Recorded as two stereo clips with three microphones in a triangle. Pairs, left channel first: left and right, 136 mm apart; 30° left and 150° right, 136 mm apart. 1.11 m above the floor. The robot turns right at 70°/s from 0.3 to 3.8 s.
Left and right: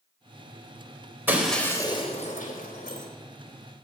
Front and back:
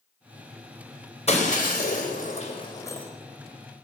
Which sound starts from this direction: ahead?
Breaking glass, at 1.3 s.